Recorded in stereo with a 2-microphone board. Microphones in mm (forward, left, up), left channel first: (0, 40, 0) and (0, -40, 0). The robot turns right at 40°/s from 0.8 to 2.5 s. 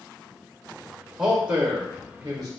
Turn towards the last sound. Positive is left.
turn(degrees=-115)